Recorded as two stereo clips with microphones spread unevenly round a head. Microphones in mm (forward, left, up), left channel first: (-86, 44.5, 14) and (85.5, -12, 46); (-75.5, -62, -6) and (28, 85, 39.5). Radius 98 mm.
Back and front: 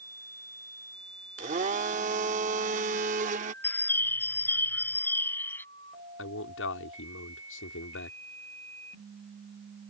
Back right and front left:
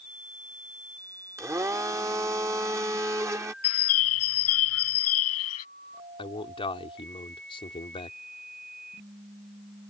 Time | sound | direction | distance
1.4 | a blender | straight ahead | ?
3.6 | a bird | 115° right | ?
6.2 | a man speaking | 170° left | ?